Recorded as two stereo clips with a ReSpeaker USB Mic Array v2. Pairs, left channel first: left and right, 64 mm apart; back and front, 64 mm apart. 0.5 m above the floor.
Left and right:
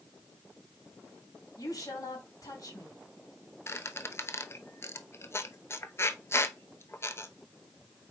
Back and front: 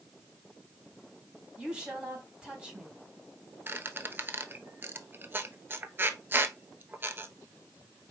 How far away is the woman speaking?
About 3.5 m.